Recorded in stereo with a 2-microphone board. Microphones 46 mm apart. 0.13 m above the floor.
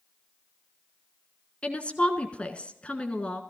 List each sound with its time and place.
1.6 s a woman speaking: 25° left (ahead or behind), 1.5 m